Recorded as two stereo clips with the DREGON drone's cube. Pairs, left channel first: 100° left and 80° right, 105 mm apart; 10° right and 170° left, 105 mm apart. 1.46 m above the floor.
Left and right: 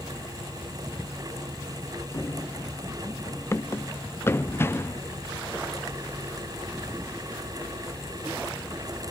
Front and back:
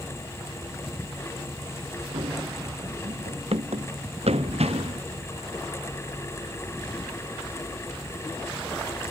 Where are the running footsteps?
160° left; by 5.0 s 165° left.